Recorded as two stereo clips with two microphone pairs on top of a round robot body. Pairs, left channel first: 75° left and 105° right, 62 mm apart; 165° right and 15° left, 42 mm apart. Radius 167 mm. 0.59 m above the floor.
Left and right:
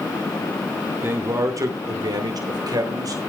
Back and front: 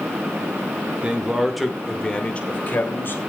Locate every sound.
1.0 s a man speaking: 50° right, 2.5 m; by 3.2 s 130° right, 3 m